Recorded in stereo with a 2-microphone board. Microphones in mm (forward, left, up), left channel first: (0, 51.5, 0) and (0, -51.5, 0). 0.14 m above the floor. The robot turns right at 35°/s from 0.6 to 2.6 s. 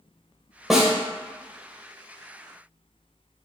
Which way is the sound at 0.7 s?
Centre (ahead or behind).